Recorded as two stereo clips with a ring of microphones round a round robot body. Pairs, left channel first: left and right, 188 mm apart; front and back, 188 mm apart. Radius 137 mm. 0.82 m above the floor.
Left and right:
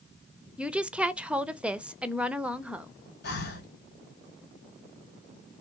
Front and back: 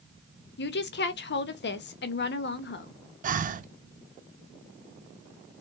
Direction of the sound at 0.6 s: 5° right.